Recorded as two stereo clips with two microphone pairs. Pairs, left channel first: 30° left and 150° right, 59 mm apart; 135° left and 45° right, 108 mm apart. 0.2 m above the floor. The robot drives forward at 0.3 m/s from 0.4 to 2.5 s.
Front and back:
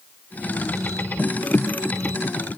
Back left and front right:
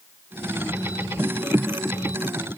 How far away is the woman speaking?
No woman speaking in this recording.